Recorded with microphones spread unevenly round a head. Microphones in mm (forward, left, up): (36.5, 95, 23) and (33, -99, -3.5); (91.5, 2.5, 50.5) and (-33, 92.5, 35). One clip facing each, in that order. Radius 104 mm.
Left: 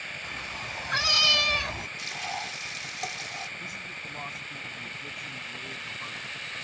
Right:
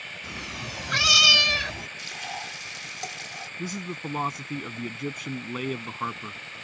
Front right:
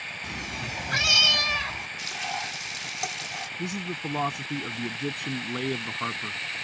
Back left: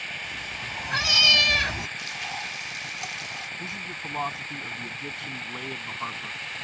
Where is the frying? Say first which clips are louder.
Left 1 dB, front right 3 dB; 5° right.